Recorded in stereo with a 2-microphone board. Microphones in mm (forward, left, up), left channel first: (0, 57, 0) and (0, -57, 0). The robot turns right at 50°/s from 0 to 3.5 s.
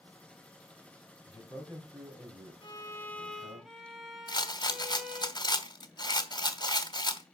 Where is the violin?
135° left, 1.9 m; by 5.3 s straight behind, 1.9 m.